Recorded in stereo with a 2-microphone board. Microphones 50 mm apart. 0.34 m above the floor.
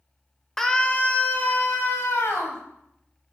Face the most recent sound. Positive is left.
turn(degrees=60)  # may be behind; listen again after turning